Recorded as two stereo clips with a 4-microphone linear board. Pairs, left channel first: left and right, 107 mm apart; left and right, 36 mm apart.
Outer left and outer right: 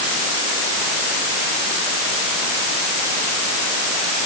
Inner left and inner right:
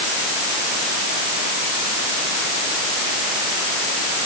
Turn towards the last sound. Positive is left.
No sound to turn to.